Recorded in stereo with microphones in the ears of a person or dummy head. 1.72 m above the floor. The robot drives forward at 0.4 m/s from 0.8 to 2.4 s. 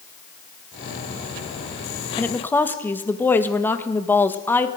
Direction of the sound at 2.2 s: 10° left (ahead or behind).